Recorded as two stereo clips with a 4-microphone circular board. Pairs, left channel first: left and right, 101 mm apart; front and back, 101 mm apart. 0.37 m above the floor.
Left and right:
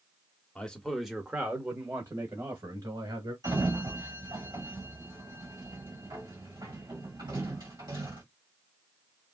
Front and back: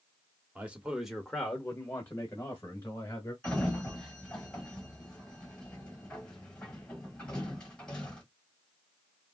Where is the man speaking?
140° left, 0.8 m; by 3.3 s 55° right, 1.5 m.